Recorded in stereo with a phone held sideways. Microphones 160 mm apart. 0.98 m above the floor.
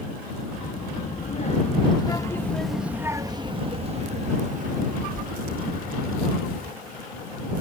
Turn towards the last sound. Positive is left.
turn(degrees=-70)  # may be behind; listen again after turning